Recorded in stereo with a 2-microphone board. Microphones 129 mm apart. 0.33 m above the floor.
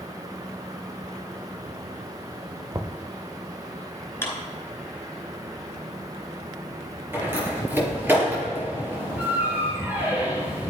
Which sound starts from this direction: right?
Knocking, at 2.7 s.